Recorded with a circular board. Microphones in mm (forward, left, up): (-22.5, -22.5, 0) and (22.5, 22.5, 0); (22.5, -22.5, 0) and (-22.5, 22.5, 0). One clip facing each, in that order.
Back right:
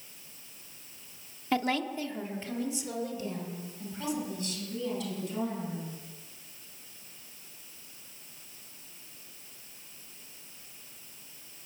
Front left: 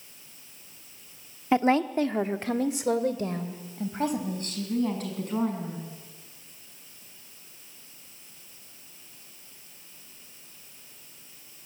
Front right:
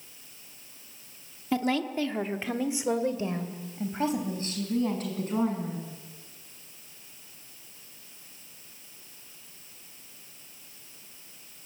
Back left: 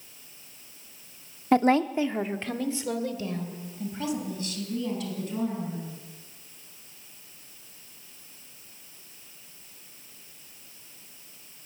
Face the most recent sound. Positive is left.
turn(degrees=0)